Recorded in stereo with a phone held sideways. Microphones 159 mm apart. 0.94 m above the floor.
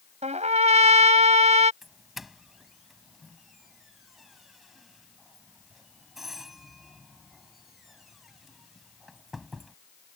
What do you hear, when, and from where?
0.2 s a trumpet: 45° right (ahead or behind)
1.8 s a doorbell: centre (ahead or behind)